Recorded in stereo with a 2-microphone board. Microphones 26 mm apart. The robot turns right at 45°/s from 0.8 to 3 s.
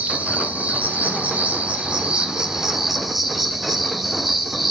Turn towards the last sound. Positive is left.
turn(degrees=0)